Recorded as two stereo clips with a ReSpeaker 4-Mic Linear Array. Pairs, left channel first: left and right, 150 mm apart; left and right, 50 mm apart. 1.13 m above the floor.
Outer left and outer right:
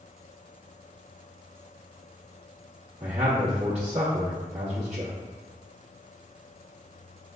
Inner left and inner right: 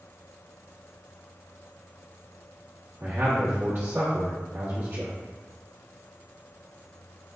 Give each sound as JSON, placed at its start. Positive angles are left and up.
{"t": 3.0, "sound": "a man speaking", "side_deg": -55, "distance_m": 1.3}